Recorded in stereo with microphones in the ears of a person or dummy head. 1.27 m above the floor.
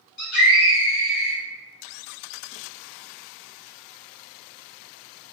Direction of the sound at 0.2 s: 65° left (ahead or behind).